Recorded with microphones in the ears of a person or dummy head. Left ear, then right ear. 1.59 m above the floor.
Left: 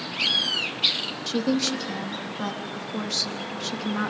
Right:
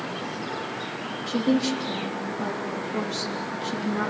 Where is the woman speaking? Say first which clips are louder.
Right 1 dB; 40° left (ahead or behind), 3.5 m.